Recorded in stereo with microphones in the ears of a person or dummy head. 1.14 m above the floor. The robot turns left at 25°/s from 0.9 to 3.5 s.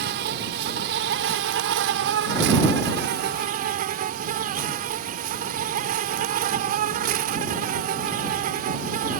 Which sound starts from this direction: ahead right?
An insect, at 0.0 s.